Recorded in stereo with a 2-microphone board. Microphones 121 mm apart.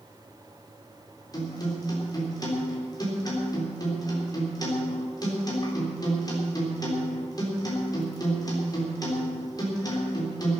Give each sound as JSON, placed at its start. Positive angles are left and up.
{"t": 1.3, "sound": "a guitar", "side_deg": 35, "distance_m": 4.0}